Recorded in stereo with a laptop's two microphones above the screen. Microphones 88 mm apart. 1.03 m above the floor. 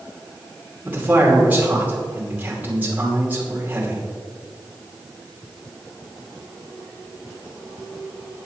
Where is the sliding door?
I don't hear a sliding door.